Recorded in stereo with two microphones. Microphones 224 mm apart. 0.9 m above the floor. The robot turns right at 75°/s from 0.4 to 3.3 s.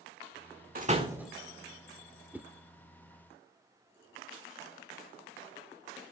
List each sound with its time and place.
0.8 s a door slam: 40° right (ahead or behind), 1.5 m; by 1.3 s centre (ahead or behind), 1.5 m
2.3 s a whoosh: 10° right (ahead or behind), 0.6 m; by 2.5 s 5° right (ahead or behind), 0.6 m